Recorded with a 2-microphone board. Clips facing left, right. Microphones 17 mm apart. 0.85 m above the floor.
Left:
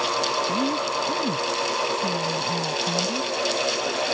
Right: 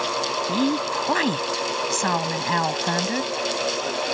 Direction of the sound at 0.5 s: 80° right.